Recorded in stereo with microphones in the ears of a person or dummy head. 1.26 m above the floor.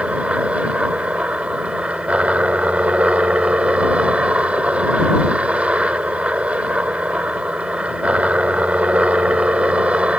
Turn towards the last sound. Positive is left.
turn(degrees=-5)  # may be behind; listen again after turning